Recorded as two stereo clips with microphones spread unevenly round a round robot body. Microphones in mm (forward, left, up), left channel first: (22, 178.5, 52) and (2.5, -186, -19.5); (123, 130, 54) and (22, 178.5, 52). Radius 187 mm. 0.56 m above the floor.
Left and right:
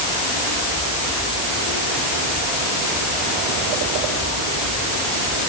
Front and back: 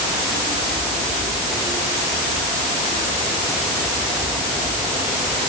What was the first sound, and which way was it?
Only background noise.